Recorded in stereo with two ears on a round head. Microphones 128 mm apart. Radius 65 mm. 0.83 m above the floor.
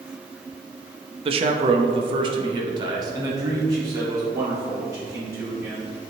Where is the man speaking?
40° right (ahead or behind), 0.7 m; by 5.8 s 20° right (ahead or behind), 3 m.